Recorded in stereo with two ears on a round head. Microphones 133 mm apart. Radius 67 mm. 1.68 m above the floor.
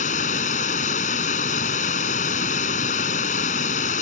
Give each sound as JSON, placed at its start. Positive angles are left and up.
{"t": 0.0, "sound": "running water", "side_deg": 55}